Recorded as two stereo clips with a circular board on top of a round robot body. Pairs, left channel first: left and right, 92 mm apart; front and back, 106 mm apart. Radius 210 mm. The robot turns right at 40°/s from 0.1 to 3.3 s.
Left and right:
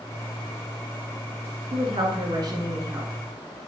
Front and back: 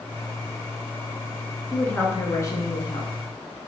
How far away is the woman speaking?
About 1.8 m.